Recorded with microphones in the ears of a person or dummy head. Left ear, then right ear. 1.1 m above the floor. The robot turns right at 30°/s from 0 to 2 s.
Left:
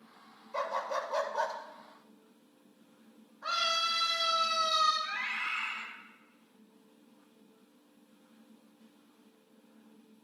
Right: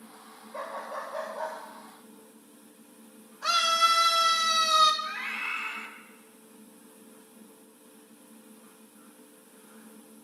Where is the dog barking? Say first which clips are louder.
Left 3 dB; 35° left, 1.7 m; by 1.6 s 65° left, 1.7 m.